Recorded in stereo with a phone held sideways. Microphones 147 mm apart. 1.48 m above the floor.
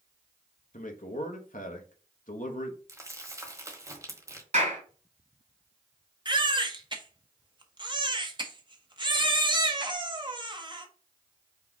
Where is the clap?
55° right (ahead or behind), 3 m.